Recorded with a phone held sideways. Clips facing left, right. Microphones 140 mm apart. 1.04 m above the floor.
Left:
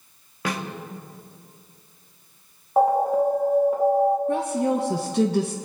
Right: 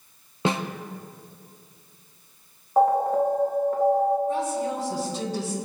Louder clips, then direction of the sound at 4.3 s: Left 4 dB; 60° left (ahead or behind).